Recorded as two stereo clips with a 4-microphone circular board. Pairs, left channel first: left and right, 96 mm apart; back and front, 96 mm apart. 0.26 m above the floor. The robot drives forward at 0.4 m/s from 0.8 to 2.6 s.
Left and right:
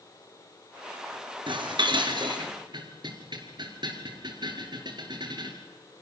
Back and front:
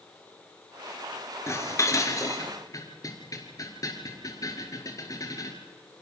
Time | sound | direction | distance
1.5 | dishes clattering | 120° right | 3 m